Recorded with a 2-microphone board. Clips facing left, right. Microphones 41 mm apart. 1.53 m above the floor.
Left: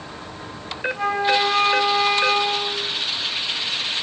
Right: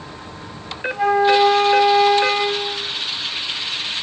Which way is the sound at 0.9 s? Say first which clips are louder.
Right 5 dB; 10° right (ahead or behind).